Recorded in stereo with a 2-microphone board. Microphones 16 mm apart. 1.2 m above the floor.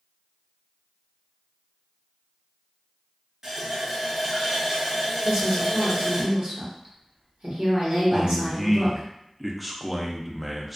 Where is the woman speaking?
70° right (ahead or behind), 1.3 m.